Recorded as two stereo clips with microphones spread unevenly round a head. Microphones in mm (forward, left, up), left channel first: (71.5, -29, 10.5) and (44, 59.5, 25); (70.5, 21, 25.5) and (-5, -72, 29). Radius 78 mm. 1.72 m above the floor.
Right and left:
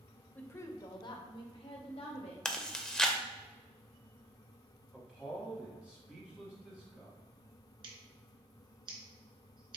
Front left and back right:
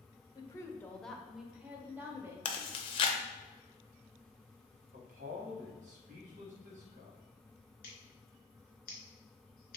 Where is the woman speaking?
5° left, 0.6 m; by 2.4 s 60° right, 1.4 m.